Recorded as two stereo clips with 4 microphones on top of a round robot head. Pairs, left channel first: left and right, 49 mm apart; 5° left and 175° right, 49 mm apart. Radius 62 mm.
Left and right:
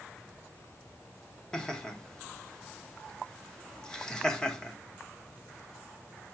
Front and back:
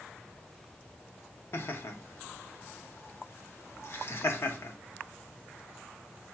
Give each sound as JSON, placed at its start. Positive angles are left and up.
{"t": 1.5, "sound": "laughter", "azimuth_deg": 15, "distance_m": 1.2}